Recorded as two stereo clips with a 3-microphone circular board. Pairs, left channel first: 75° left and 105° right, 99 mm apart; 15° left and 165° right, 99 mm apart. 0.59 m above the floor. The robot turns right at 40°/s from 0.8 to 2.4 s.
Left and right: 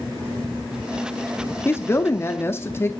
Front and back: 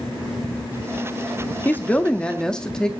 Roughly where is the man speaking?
Ahead left.